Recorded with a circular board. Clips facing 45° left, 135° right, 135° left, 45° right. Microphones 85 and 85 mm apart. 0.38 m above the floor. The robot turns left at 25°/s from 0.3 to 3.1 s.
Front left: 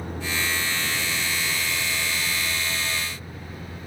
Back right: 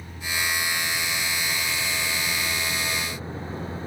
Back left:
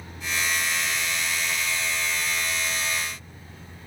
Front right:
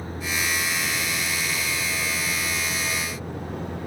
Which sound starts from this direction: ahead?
A vehicle, at 0.0 s.